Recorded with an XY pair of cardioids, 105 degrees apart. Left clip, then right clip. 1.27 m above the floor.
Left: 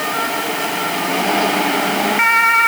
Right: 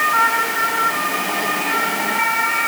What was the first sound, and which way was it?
Only background noise.